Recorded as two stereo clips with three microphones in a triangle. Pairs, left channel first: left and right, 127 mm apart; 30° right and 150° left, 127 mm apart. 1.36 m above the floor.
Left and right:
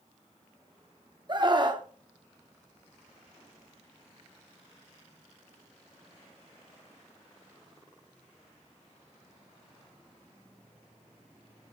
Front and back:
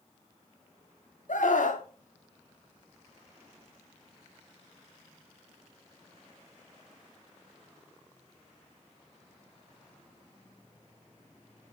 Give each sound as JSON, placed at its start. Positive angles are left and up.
{"t": 1.3, "sound": "a scream", "azimuth_deg": -35, "distance_m": 2.5}